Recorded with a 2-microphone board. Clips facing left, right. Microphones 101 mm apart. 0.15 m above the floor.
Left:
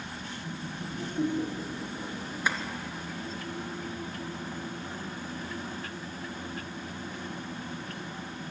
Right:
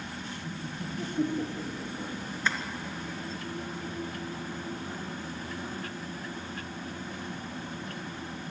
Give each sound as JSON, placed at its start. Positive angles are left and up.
{"t": 0.4, "sound": "laughter", "side_deg": -5, "distance_m": 5.0}
{"t": 2.5, "sound": "tapping", "side_deg": 10, "distance_m": 2.5}